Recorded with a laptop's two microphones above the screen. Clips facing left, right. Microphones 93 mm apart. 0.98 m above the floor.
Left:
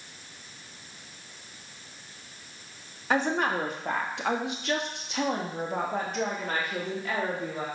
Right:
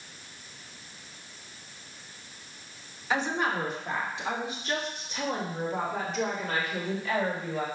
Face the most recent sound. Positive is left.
turn(degrees=35)  # may be behind; listen again after turning